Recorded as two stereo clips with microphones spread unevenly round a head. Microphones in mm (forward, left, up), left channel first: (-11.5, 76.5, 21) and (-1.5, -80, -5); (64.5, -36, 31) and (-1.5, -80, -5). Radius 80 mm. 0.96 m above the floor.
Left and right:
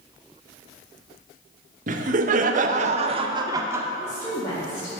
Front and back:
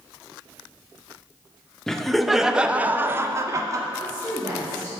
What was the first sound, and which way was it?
Laughter, 60° right.